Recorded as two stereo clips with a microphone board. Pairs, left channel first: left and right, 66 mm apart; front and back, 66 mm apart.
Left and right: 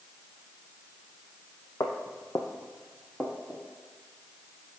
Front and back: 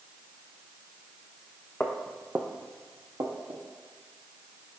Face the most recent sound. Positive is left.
turn(degrees=-175)